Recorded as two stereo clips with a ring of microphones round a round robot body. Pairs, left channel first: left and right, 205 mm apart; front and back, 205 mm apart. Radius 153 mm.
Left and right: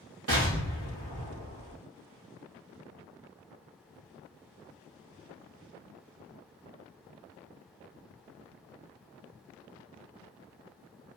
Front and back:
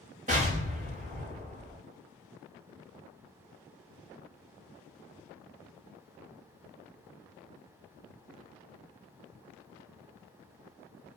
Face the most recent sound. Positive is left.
turn(degrees=-115)